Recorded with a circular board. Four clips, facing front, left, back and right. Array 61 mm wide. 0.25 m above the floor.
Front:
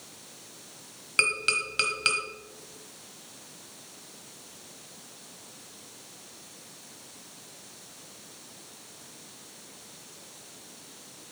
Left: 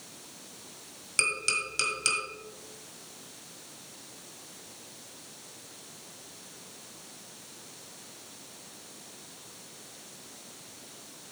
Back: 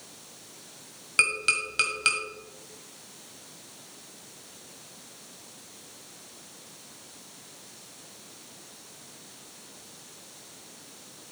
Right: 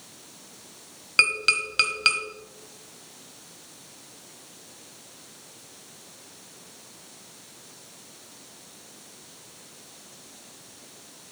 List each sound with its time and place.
1.2 s tapping: 90° right, 1.3 m